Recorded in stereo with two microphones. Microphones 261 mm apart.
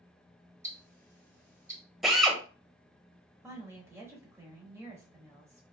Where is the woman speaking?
10° right (ahead or behind), 1.0 m.